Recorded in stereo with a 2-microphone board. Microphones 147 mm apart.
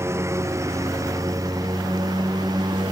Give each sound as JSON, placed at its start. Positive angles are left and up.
{"t": 0.0, "sound": "a lawn mower", "side_deg": -20}